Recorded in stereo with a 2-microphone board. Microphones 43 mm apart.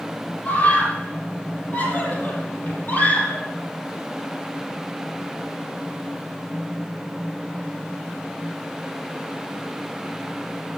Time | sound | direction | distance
0.5 | a scream | 45° left (ahead or behind) | 9 m